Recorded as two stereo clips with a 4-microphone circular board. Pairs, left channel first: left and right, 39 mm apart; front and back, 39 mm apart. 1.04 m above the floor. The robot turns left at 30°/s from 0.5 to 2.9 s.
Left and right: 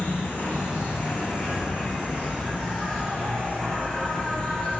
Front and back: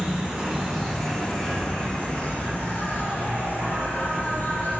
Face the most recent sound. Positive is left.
turn(degrees=30)